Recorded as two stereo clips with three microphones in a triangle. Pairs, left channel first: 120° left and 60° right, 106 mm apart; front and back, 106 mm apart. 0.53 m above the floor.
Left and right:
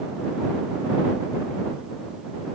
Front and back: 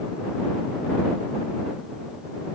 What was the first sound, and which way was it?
Only background noise.